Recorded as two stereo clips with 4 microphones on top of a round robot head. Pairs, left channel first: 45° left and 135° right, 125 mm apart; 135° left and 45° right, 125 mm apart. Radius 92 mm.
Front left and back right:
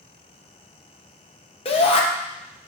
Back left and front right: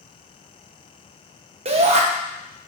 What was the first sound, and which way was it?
A shout, 5° right.